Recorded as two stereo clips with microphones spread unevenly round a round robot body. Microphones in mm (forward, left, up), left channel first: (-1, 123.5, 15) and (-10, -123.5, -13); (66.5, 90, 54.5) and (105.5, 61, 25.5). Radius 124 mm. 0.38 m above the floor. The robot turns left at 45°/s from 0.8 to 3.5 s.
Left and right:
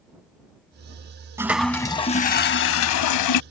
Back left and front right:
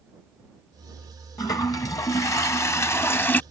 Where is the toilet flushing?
175° right; by 3.4 s 95° left.